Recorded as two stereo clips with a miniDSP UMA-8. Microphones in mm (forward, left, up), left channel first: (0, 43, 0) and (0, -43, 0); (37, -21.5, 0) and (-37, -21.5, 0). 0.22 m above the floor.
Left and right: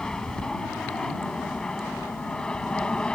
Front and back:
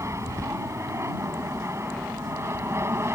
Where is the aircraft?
170° left; by 3.2 s 165° left.